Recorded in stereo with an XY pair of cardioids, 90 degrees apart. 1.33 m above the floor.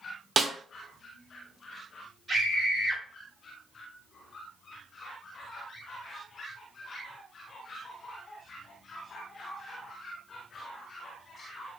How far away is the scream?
About 1.3 m.